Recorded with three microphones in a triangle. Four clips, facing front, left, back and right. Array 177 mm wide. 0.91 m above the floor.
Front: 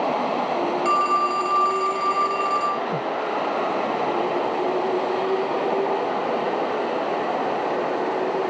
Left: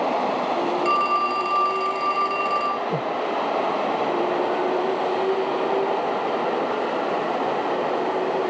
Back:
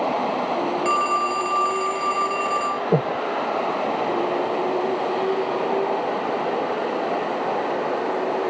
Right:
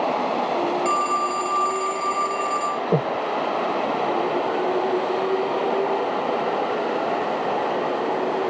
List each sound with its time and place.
0.8 s a phone ringing: 145° left
2.9 s breathing: 145° right